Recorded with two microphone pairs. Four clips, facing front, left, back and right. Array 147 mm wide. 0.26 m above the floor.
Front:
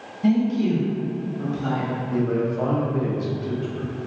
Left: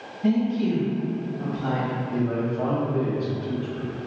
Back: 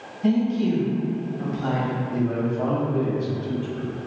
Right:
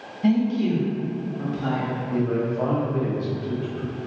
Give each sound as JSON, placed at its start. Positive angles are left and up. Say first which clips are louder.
{"t": 0.2, "sound": "a woman speaking", "louder": "right 1 dB, front 1 dB", "azimuth_deg": -80, "distance_m": 1.3}
{"t": 2.1, "sound": "a man speaking", "louder": "right 3 dB, front 3 dB", "azimuth_deg": 0, "distance_m": 0.9}